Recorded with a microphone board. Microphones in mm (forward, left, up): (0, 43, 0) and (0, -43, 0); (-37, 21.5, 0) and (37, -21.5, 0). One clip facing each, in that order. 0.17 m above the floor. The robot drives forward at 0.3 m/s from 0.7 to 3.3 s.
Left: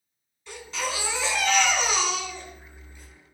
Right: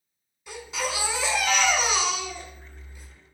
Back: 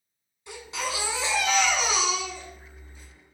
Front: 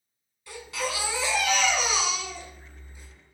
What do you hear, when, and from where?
0.5 s a baby crying: 160° right, 0.7 m; by 3.1 s 175° right, 1.2 m